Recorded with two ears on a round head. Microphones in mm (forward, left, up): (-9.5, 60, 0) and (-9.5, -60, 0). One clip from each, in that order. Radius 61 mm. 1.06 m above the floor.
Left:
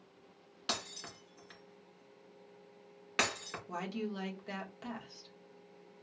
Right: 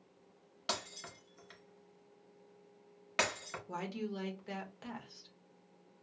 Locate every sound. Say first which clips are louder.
0.7 s breaking glass: left 1 dB; 10° left (ahead or behind), 2.5 m
3.7 s a woman speaking: left 1 dB; 5° left (ahead or behind), 1.1 m